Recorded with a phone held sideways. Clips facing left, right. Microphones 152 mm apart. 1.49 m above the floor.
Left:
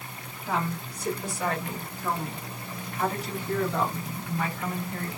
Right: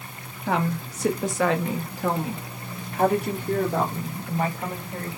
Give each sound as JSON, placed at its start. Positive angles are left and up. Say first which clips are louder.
{"t": 0.5, "sound": "a woman speaking", "louder": "right 5 dB", "side_deg": -60, "distance_m": 1.4}